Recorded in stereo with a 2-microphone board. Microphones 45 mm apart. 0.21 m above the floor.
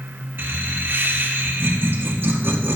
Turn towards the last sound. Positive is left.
turn(degrees=-50)  # may be behind; listen again after turning